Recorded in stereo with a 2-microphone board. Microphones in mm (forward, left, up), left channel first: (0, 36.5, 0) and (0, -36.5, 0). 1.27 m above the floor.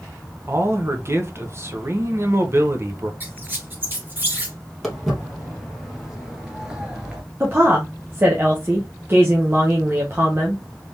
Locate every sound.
0.5 s a man speaking: 35° right (ahead or behind), 0.9 m
3.2 s a squeak: 25° right (ahead or behind), 1.7 m
4.8 s footsteps: centre (ahead or behind), 1.9 m; by 7.2 s 15° right (ahead or behind), 1.2 m
7.4 s a woman speaking: 30° right (ahead or behind), 1.0 m